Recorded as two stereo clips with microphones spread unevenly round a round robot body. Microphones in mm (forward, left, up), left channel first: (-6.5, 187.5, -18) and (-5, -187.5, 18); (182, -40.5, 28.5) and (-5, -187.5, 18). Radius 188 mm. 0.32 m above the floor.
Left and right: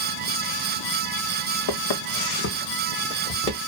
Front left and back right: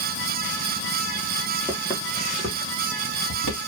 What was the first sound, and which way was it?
Footsteps, 125° left.